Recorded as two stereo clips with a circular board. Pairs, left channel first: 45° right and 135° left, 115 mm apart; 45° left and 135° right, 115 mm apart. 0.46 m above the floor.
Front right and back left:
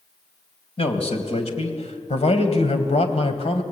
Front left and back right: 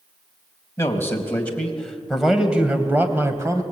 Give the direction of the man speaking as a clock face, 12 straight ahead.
1 o'clock.